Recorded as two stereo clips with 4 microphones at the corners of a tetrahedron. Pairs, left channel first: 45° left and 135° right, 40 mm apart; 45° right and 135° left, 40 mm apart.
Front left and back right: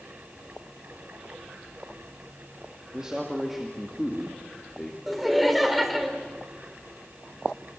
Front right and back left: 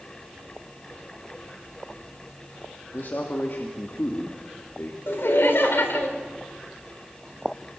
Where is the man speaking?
65° right, 2 m; by 5.0 s 20° right, 2.5 m.